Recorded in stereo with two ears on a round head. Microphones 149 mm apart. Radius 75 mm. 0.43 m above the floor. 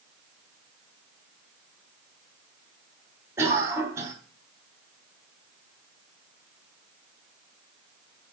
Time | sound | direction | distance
3.4 | a cough | 20° right (ahead or behind) | 3.5 m